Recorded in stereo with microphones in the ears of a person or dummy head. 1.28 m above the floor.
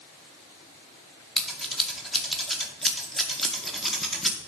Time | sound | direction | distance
1.4 | scissors | centre (ahead or behind) | 0.8 m